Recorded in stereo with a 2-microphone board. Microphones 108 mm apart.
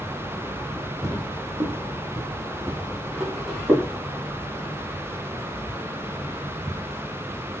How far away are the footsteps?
About 1.1 m.